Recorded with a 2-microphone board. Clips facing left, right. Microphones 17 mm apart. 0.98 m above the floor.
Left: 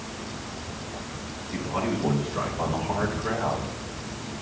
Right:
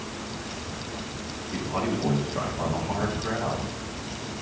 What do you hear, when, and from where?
1.5 s a man speaking: 5° right (ahead or behind), 4 m; by 3.7 s 30° left (ahead or behind), 4 m